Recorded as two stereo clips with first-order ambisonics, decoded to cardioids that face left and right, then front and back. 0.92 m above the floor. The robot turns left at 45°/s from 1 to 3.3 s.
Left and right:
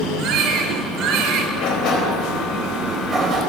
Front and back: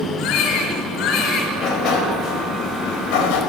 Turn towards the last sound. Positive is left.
turn(degrees=-20)